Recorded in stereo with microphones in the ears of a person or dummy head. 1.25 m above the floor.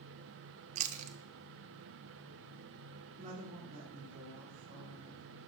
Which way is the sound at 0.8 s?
35° right (ahead or behind).